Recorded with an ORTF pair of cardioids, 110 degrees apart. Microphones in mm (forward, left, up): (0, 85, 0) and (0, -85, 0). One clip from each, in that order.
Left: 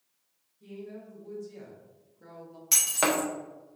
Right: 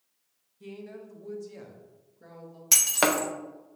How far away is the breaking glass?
About 0.6 m.